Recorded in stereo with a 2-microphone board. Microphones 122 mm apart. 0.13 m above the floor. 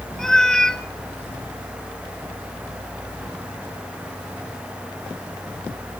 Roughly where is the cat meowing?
Centre.